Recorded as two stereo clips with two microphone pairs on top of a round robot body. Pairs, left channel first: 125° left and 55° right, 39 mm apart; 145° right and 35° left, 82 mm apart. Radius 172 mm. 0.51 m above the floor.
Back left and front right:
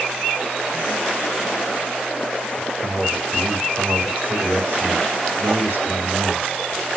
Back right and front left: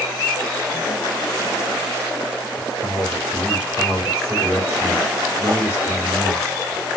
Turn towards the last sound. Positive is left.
turn(degrees=-35)